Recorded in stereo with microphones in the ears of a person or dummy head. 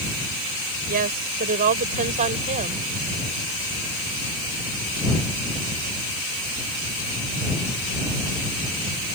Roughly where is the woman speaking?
Right.